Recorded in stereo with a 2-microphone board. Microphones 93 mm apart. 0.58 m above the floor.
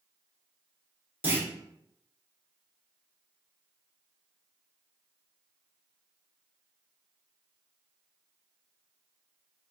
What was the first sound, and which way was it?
A clunk, 25° right (ahead or behind).